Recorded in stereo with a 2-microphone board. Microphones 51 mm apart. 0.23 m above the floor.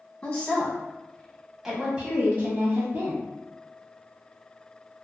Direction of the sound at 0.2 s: 20° left (ahead or behind).